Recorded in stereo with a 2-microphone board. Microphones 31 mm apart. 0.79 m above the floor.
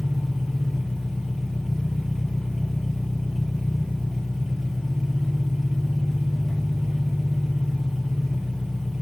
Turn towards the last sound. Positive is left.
turn(degrees=5)  # may be behind; listen again after turning